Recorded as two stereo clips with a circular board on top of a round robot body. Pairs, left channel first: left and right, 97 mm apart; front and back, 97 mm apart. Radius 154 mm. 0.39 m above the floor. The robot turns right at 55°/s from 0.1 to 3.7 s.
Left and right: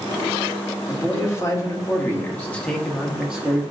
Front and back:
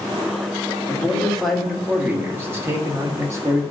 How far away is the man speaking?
About 1.3 m.